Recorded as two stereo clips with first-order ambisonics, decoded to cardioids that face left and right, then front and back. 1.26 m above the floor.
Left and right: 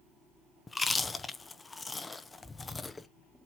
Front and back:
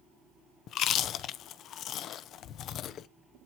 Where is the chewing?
20° left, 0.7 m.